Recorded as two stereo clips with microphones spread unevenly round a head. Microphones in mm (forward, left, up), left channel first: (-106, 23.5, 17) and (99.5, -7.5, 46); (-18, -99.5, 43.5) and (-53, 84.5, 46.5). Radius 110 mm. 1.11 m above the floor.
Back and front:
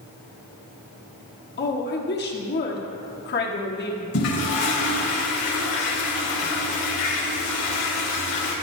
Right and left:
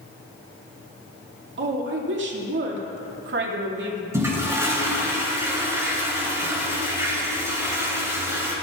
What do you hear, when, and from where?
1.6 s a woman speaking: 130° left, 2 m
4.1 s a toilet flushing: 175° left, 4 m